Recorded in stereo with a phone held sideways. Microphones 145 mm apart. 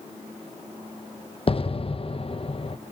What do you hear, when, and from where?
1.5 s an explosion: 45° left (ahead or behind), 0.8 m